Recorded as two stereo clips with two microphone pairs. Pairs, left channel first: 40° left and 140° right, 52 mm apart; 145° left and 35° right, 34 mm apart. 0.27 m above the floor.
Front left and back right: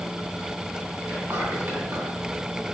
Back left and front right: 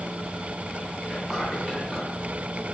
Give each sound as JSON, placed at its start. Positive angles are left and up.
{"t": 1.0, "sound": "whispering", "azimuth_deg": -125, "distance_m": 2.0}